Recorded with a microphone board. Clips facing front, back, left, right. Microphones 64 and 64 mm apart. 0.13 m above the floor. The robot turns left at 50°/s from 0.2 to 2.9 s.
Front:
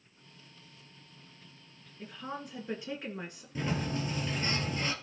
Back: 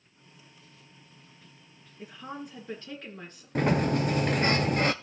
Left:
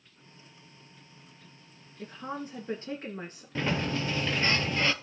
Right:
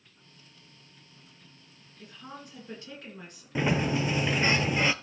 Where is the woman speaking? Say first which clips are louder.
Back 1 dB, left 8 dB; 115° left, 1.9 m; by 3.5 s 70° left, 1.9 m.